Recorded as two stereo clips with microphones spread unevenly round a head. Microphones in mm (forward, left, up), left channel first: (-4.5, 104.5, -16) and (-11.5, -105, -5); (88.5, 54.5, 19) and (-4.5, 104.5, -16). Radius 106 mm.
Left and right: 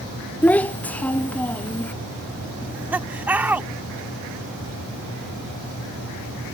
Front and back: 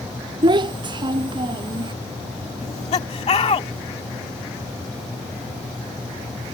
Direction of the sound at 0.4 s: 170° left.